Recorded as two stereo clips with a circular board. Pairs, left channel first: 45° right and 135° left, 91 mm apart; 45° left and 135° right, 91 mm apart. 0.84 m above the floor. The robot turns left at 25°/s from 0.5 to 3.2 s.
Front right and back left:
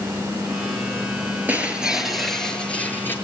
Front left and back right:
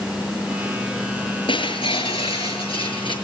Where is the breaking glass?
65° left, 6.5 m; by 3.1 s 20° left, 6.5 m.